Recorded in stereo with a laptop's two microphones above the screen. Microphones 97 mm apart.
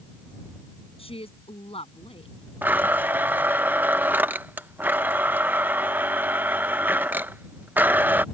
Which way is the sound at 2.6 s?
20° right (ahead or behind).